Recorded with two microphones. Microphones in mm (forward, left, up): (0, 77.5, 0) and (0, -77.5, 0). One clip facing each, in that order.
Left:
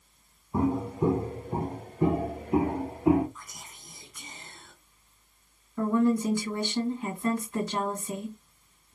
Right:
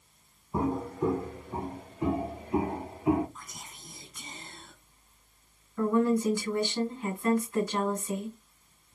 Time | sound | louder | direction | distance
0.5 | footsteps | left 3 dB | 5° right (ahead or behind) | 0.5 m
3.4 | whispering | right 1 dB | 30° right (ahead or behind) | 1.4 m
5.8 | a woman speaking | left 1 dB | 20° left (ahead or behind) | 1.8 m